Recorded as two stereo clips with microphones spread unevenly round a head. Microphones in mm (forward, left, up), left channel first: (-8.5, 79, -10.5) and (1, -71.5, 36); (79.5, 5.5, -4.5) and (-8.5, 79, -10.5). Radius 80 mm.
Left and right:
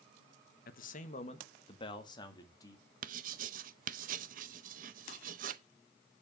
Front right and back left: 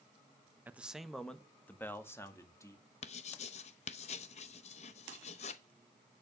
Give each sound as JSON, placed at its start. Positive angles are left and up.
{"t": 0.7, "sound": "a man speaking", "azimuth_deg": 65, "distance_m": 1.1}
{"t": 3.0, "sound": "writing", "azimuth_deg": -70, "distance_m": 0.7}